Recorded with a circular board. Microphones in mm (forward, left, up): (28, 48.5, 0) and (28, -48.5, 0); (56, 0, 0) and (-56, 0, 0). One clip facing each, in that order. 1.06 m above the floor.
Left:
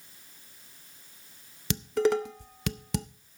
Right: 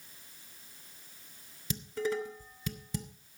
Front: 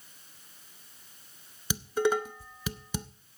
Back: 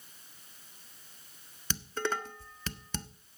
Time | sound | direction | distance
1.7 | dishes clattering | 80° left | 0.6 m